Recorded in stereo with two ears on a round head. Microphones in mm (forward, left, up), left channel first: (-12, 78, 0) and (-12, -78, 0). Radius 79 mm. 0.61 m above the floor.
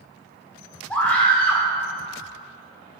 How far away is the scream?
About 2 m.